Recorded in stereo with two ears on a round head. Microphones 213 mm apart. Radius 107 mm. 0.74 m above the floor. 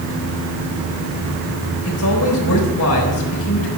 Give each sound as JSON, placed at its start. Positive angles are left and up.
{"t": 1.9, "sound": "a man speaking", "side_deg": 65, "distance_m": 4.0}